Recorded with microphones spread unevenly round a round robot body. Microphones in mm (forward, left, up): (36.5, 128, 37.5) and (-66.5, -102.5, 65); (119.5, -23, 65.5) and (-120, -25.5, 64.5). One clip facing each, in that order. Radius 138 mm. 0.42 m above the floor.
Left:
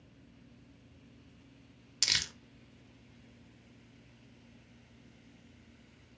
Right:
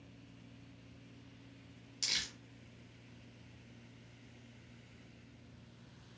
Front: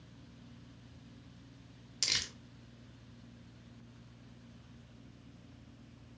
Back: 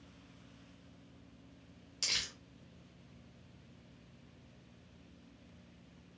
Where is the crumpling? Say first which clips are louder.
Left 4 dB, front 3 dB; 65° left, 0.5 m.